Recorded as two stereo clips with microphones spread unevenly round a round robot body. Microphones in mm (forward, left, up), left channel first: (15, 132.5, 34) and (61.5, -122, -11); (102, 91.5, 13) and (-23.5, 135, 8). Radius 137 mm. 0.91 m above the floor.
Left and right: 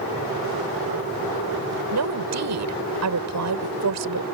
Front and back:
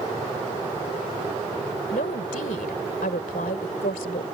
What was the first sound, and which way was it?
A woman speaking, 65° right.